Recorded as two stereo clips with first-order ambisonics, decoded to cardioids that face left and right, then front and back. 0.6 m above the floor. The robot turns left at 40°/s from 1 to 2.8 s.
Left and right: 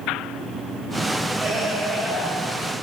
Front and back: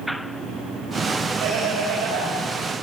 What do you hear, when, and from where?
1.4 s laughter: 145° right, 3 m; by 2.3 s 175° left, 3 m